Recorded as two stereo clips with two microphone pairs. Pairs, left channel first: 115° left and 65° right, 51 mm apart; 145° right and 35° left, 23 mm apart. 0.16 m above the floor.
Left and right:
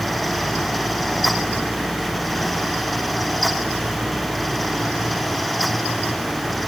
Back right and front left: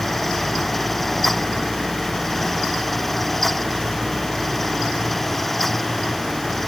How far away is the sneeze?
No sneeze in this recording.